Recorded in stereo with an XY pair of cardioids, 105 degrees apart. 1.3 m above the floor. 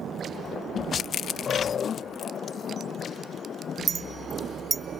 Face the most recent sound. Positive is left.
turn(degrees=-35)